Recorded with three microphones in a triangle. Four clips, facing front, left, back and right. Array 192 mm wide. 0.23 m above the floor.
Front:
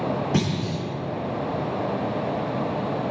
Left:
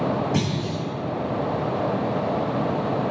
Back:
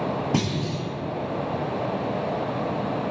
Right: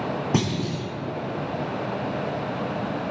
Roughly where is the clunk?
Behind right.